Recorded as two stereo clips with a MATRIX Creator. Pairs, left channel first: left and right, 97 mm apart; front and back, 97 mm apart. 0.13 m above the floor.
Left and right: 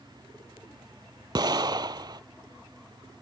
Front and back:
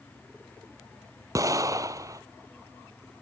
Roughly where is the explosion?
Behind right.